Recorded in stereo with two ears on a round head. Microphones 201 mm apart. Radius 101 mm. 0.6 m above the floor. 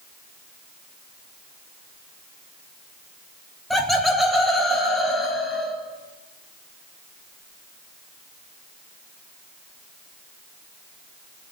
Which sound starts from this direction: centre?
Laughter, at 3.7 s.